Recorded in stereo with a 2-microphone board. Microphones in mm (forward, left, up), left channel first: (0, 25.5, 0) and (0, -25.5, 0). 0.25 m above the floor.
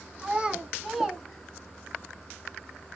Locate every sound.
0.2 s a child speaking: 25° right (ahead or behind), 1.6 m; by 2.0 s 20° left (ahead or behind), 1.2 m